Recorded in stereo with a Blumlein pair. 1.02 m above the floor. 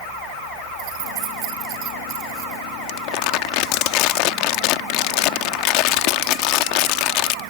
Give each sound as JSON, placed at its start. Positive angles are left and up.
{"t": 0.8, "sound": "keys jangling", "azimuth_deg": -40}
{"t": 2.9, "sound": "crumpling", "azimuth_deg": 40}